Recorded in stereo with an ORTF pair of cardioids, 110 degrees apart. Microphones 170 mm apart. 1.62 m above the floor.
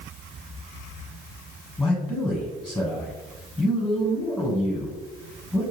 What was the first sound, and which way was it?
A man speaking, 10° left.